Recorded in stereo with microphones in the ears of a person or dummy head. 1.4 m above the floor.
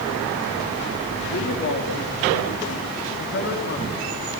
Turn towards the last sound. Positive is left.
turn(degrees=30)  # may be behind; listen again after turning